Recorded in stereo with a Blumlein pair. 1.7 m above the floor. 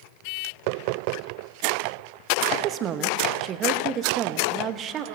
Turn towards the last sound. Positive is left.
turn(degrees=-30)